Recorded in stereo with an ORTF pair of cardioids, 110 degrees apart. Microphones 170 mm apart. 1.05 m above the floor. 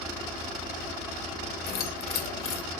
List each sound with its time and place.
1.7 s keys jangling: 65° left, 0.7 m